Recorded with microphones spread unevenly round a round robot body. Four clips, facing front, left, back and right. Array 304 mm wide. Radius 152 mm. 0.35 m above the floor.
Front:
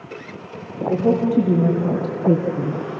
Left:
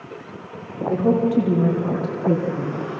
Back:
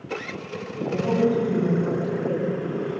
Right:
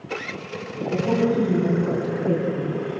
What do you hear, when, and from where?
0.9 s a woman speaking: 35° left, 6 m; by 2.8 s 15° left, 3.5 m